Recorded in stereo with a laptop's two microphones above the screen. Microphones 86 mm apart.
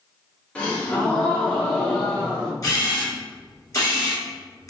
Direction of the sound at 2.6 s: 35° left (ahead or behind).